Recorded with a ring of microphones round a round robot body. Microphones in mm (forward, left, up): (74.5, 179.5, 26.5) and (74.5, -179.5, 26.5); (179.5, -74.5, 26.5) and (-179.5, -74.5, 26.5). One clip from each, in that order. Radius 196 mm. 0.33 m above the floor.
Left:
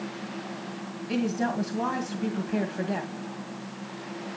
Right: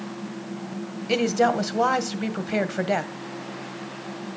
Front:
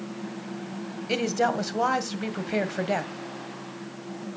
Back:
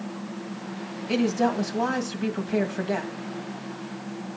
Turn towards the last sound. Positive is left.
turn(degrees=-60)